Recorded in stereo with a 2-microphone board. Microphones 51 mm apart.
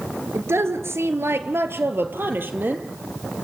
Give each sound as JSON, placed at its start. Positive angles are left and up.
{"t": 0.3, "sound": "a woman speaking", "side_deg": -55, "distance_m": 2.5}